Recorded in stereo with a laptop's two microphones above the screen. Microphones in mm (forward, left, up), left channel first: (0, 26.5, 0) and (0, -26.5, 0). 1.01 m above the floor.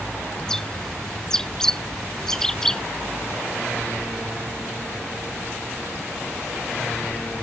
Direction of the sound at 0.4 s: 10° left (ahead or behind).